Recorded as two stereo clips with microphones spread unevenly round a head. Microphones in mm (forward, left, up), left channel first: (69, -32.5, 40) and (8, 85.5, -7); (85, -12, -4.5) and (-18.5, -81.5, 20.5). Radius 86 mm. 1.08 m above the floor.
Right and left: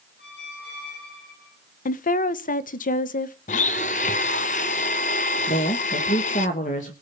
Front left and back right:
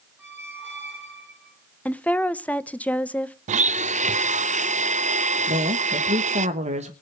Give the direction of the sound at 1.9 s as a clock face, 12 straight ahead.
1 o'clock.